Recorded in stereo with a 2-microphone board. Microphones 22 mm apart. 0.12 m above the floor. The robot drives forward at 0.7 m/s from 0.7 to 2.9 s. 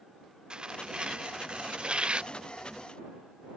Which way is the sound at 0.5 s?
45° right (ahead or behind).